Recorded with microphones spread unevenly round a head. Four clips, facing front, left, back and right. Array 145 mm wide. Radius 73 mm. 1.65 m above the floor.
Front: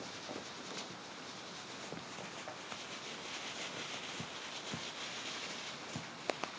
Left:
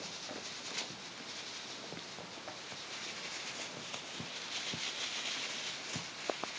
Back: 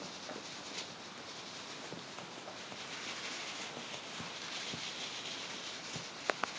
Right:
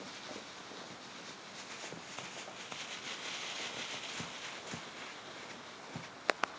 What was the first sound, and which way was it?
Only background noise.